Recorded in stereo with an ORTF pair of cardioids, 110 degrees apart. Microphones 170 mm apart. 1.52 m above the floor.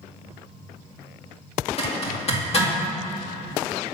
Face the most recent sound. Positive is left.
turn(degrees=40)